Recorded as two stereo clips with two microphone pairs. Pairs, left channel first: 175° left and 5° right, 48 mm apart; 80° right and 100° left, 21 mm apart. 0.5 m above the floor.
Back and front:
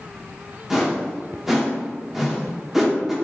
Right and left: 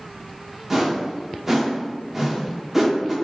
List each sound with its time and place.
0.7 s a whoosh: 65° left, 0.9 m